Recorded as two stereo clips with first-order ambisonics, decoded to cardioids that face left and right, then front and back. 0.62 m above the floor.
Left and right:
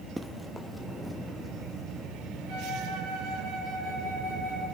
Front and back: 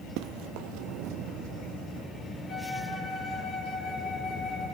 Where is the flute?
75° right, 7.5 m.